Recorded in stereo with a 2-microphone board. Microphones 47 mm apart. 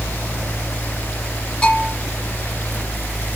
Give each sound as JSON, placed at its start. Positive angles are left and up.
{"t": 1.6, "sound": "a bell", "side_deg": 20, "distance_m": 4.0}